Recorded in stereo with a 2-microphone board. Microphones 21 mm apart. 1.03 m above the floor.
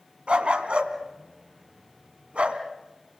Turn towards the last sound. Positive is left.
turn(degrees=-65)  # may be behind; listen again after turning